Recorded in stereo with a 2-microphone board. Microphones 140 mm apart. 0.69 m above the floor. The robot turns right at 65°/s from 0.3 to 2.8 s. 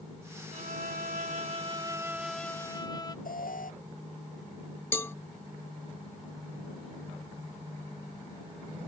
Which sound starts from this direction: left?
An alarm, at 3.2 s.